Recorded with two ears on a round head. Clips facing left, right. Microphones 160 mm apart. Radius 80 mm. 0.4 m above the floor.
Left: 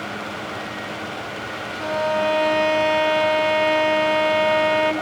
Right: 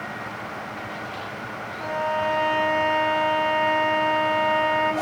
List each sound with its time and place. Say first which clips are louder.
1.8 s a violin: left 4 dB; 50° left (ahead or behind), 3 m